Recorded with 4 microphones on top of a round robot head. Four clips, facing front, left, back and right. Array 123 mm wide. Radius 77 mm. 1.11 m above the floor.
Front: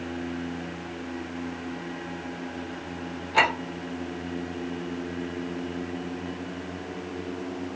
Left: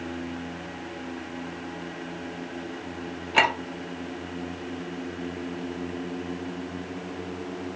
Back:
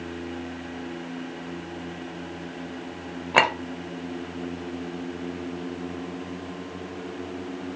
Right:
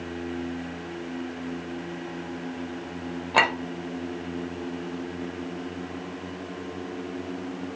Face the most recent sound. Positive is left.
turn(degrees=-150)